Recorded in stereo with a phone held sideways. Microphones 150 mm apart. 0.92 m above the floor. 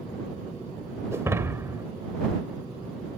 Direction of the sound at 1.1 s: 20° right (ahead or behind).